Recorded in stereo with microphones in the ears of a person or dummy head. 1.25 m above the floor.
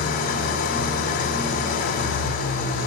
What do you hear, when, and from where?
0.0 s an engine running: 55° left (ahead or behind), 2 m